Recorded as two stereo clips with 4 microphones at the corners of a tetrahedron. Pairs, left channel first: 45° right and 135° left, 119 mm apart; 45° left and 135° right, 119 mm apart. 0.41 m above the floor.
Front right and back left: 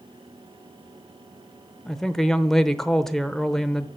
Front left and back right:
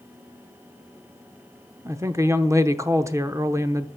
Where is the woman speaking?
125° right, 0.8 m.